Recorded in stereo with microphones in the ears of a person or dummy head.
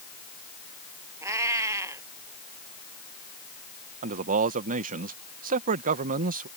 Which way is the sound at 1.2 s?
10° right (ahead or behind).